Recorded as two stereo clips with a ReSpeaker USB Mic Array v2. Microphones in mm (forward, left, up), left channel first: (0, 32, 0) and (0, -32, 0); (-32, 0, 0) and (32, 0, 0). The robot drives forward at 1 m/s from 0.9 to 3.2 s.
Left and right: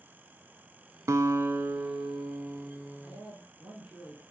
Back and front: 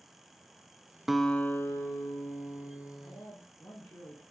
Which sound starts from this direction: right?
A guitar, at 1.1 s.